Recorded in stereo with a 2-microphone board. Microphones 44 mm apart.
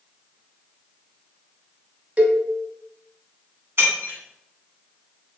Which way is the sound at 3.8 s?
60° right (ahead or behind).